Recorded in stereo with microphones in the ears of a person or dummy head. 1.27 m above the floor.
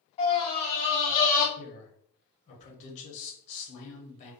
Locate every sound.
0.2 s a scream: 30° left (ahead or behind), 1.1 m; by 1.5 s 40° left (ahead or behind), 0.5 m
1.6 s a man speaking: 40° left (ahead or behind), 0.9 m